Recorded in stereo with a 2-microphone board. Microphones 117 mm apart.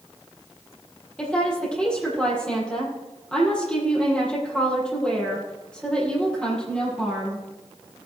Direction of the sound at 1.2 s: 10° left (ahead or behind).